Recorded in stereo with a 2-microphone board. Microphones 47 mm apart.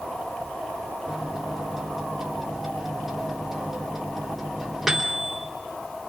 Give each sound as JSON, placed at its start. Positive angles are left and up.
{"t": 1.1, "sound": "a microwave", "side_deg": -5, "distance_m": 3.5}